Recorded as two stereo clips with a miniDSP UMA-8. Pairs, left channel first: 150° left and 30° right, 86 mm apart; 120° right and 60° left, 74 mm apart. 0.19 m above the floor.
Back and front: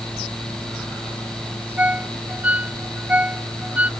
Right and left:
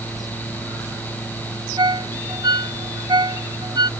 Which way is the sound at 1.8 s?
45° left.